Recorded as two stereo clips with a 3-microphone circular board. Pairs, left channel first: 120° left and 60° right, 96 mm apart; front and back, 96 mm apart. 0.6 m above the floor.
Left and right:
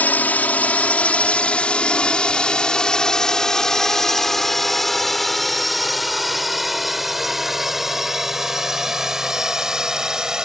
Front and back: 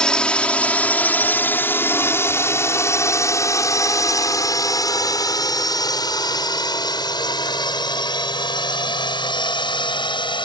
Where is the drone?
70° left; by 10.5 s 25° left.